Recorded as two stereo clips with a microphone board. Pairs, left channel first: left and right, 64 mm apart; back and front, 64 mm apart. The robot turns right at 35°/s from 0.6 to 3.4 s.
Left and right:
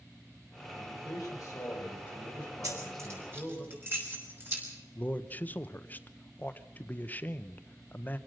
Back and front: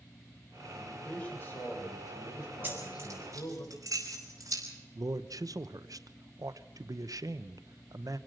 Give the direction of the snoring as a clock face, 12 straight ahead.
No snoring in this recording.